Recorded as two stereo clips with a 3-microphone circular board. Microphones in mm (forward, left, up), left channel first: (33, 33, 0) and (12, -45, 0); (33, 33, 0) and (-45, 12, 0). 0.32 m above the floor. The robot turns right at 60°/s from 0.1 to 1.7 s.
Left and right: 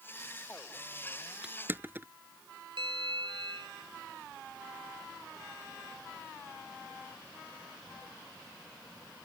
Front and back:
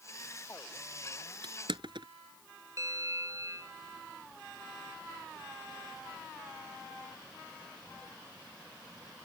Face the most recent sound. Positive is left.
turn(degrees=-115)